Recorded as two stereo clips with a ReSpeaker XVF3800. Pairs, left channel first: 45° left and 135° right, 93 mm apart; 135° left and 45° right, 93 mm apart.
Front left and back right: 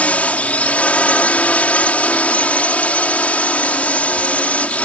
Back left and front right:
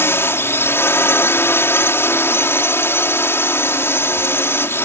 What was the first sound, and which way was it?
A drone, 105° left.